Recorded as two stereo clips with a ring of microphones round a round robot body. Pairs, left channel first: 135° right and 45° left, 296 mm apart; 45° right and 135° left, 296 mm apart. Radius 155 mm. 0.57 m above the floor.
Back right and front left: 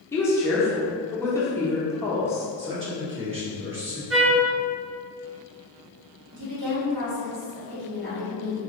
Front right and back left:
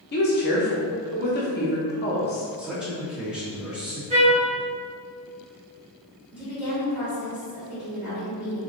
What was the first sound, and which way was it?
A woman speaking, 60° right.